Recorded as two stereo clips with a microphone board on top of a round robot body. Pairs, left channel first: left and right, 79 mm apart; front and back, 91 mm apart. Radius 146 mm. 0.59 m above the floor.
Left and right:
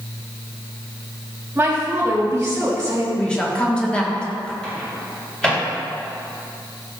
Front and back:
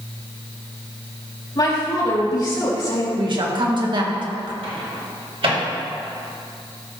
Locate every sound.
1.6 s a woman speaking: 30° right, 3 m
3.2 s a woman speaking: 165° left, 1.6 m
4.6 s a microwave: 170° left, 2.5 m